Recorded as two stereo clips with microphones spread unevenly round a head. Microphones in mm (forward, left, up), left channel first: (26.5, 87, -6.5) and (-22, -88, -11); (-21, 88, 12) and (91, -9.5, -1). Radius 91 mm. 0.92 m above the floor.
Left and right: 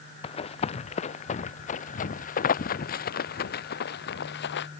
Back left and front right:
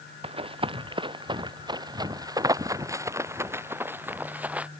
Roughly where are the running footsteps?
Ahead.